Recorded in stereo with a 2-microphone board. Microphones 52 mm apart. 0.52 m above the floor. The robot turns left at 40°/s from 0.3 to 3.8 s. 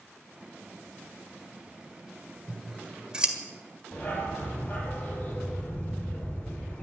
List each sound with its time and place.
2.5 s scissors: 10° left (ahead or behind), 1.8 m; by 3.4 s 20° right (ahead or behind), 1.8 m
3.9 s a dog barking: 25° left (ahead or behind), 6 m